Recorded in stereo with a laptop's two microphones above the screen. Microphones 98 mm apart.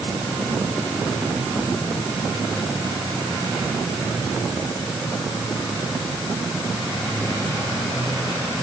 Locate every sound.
Only background noise.